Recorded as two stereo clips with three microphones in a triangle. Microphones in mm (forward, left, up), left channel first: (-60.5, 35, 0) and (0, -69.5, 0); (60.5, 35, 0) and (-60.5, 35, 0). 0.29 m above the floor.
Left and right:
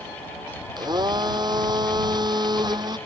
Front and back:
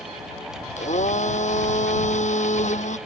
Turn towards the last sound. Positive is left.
turn(degrees=-5)